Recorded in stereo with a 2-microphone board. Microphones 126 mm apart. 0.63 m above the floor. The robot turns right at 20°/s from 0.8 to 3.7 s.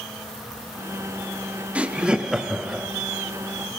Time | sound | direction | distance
1.8 | laughter | 10° right (ahead or behind) | 0.5 m